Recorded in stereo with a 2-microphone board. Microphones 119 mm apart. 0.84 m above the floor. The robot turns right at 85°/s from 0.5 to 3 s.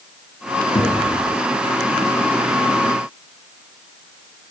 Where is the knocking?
60° left (ahead or behind), 7.5 m; by 1.1 s 85° left, 7.5 m.